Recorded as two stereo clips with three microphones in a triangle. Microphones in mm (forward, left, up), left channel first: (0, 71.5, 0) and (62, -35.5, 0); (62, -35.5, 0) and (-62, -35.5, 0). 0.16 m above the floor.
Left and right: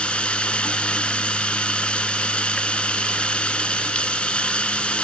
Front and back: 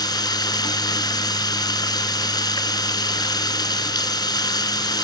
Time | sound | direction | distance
0.0 | running water | 40° left | 1.3 m